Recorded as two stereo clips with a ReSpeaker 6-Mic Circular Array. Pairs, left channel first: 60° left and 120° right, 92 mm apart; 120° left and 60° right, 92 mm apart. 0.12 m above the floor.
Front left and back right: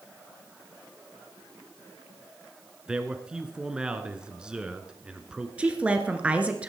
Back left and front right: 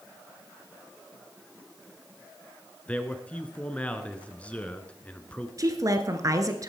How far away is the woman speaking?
About 1.5 m.